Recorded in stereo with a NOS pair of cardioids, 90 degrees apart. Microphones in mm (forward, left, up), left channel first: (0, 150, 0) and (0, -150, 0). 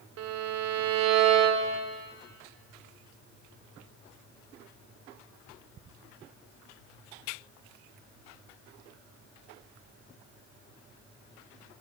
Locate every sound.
0.2 s a violin: 65° right, 0.8 m